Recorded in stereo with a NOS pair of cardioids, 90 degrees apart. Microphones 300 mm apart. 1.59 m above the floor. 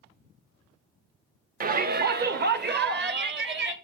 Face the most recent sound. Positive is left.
turn(degrees=-35)